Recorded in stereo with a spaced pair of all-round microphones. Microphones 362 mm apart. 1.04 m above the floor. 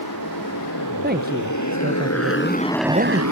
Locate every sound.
0.0 s a motorcycle: 65° left (ahead or behind); by 3.3 s 55° right (ahead or behind)
1.0 s a man speaking: 25° right (ahead or behind)